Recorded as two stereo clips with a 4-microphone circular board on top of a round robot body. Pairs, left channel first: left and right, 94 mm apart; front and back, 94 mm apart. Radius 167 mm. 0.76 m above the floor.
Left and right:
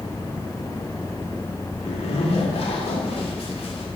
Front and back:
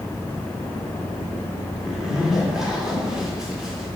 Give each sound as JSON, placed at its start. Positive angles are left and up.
{"t": 1.8, "sound": "a zipper", "azimuth_deg": 95, "distance_m": 1.9}